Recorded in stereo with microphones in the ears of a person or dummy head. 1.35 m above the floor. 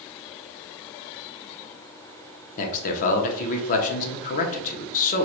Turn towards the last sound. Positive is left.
turn(degrees=40)  # may be behind; listen again after turning